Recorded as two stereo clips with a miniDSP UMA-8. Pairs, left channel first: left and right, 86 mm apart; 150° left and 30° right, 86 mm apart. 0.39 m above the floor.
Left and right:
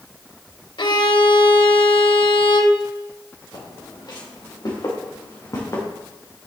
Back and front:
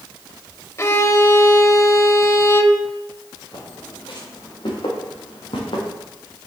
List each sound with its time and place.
0.8 s a violin: 95° left, 0.6 m
3.5 s footsteps: 125° left, 4 m; by 5.8 s 145° left, 3 m